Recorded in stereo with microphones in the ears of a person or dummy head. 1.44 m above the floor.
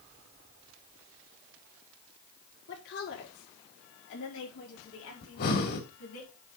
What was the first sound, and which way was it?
A woman speaking, 55° left (ahead or behind).